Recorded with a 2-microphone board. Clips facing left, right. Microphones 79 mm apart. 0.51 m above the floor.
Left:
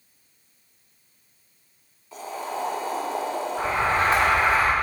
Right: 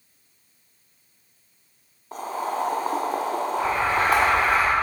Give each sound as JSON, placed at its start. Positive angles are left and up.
{"t": 2.1, "sound": "boiling", "side_deg": -50, "distance_m": 1.3}
{"t": 3.6, "sound": "an alarm", "side_deg": 30, "distance_m": 3.0}